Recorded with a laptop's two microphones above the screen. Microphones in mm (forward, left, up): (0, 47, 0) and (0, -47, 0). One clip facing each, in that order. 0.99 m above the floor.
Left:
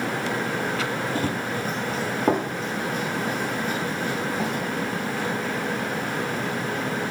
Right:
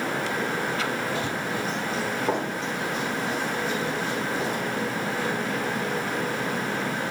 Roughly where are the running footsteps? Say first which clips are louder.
Left 2 dB; left.